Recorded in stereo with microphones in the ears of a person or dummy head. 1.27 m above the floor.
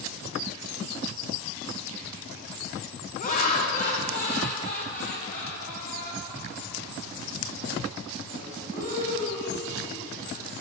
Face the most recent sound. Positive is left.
turn(degrees=50)  # may be behind; listen again after turning